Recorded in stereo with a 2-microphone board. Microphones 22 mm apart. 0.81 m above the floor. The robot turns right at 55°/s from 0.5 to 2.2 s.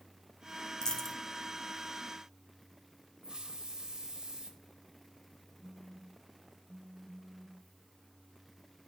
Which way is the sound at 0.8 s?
30° left (ahead or behind).